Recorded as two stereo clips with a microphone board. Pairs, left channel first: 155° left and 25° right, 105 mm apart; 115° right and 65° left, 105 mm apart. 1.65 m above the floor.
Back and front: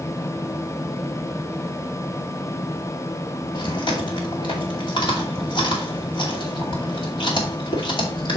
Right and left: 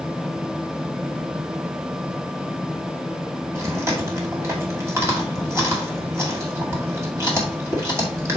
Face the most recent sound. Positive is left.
turn(degrees=130)